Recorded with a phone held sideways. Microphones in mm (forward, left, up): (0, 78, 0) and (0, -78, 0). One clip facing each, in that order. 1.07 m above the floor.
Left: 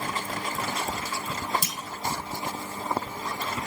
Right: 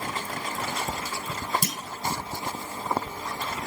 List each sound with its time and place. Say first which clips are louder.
1.6 s a clunk: right 5 dB; 55° right (ahead or behind), 1.3 m